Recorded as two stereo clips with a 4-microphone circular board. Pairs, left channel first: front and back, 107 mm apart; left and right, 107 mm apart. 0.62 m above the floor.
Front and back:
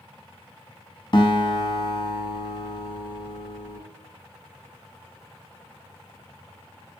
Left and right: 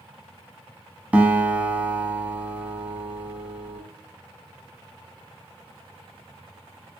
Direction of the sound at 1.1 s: 20° right.